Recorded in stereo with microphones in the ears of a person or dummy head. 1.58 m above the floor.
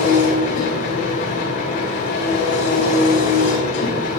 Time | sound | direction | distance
0.0 | an engine running | 50° left (ahead or behind) | 4 m